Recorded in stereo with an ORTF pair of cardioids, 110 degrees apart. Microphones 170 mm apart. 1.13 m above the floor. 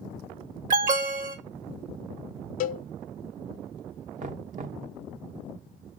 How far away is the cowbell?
About 0.5 m.